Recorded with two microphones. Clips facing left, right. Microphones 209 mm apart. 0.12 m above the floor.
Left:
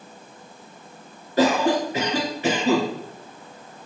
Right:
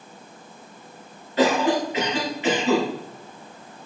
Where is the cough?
40° left (ahead or behind), 1.6 m.